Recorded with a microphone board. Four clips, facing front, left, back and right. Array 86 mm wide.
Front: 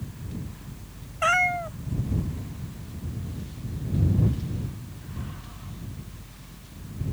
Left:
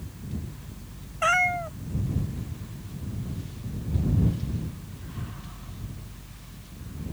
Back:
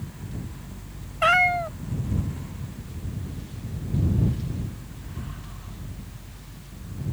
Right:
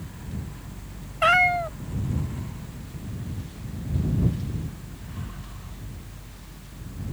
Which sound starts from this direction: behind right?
A cat meowing, at 1.2 s.